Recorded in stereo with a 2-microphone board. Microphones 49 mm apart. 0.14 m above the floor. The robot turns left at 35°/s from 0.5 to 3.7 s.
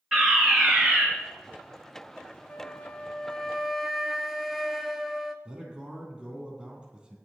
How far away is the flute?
About 1.1 m.